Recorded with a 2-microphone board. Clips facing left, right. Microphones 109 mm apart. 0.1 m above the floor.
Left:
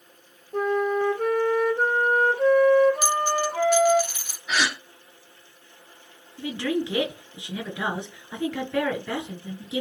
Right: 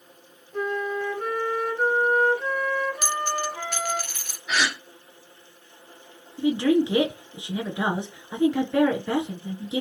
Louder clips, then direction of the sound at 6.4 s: Right 7 dB; 20° right (ahead or behind).